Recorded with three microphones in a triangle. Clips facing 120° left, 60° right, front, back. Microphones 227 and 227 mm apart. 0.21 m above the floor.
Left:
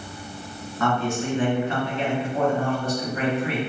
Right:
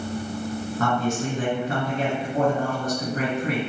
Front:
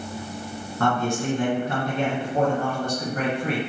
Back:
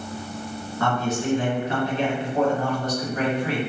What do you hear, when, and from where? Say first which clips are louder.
0.8 s a man speaking: left 1 dB, front 1 dB; 25° right, 1.8 m